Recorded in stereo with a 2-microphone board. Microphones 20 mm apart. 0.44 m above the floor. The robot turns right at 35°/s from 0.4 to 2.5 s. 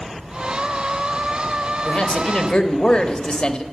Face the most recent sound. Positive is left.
turn(degrees=45)  # may be behind; listen again after turning